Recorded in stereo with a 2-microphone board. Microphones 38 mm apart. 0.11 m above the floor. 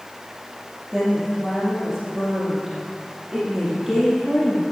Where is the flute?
I don't hear a flute.